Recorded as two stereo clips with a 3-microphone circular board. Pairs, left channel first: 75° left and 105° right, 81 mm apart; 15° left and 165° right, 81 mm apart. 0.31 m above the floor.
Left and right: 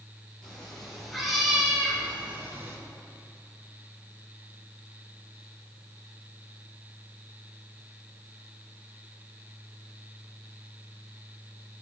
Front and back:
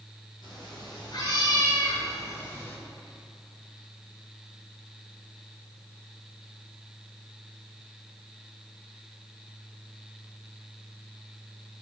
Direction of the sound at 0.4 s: 5° right.